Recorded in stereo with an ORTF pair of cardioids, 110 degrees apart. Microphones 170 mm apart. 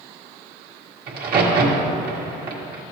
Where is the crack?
65° right, 1.8 m.